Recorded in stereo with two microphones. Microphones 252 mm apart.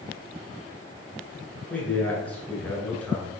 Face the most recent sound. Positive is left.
turn(degrees=5)  # may be behind; listen again after turning